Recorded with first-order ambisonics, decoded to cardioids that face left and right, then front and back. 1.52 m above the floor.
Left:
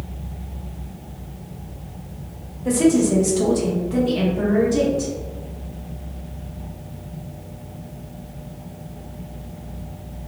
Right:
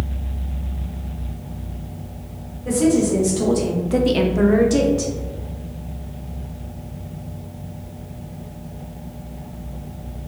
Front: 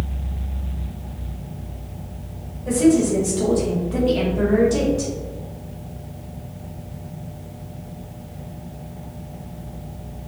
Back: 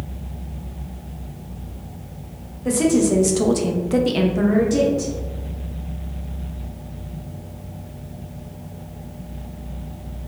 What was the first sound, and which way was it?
A woman speaking, 155° left.